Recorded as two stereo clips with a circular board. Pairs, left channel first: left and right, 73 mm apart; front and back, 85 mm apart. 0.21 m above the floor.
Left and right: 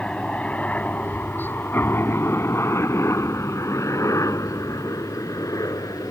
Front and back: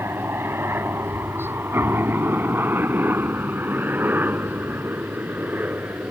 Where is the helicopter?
155° left; by 6.1 s 115° left.